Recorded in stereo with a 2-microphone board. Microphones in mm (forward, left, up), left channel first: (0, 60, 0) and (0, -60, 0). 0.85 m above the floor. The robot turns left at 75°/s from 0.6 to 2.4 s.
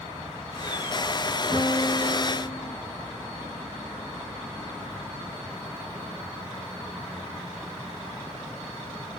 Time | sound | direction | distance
1.5 | a piano | 125° right | 1.9 m